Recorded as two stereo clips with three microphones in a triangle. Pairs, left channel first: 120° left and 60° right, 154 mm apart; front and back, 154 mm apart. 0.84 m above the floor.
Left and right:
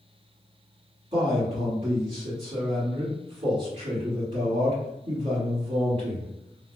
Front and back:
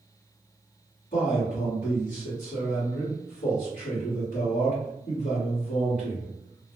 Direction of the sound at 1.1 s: 15° right.